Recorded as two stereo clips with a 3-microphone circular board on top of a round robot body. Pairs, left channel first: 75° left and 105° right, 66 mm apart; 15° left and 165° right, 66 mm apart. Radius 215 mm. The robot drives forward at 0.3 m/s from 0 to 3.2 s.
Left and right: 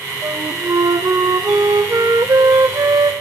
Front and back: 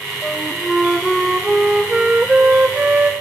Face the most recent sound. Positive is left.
turn(degrees=-105)